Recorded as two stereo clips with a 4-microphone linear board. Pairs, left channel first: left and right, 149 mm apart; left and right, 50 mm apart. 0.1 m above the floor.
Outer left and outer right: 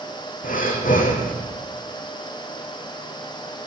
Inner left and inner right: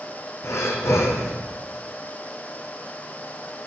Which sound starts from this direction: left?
Breathing, at 0.4 s.